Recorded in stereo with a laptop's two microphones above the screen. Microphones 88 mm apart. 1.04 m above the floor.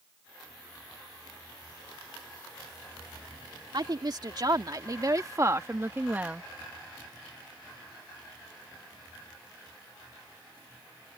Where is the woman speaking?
50° right (ahead or behind); by 6.4 s 10° right (ahead or behind).